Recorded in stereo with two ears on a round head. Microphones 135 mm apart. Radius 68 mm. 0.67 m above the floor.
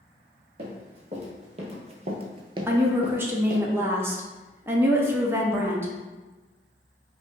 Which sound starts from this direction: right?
Running footsteps, at 0.6 s.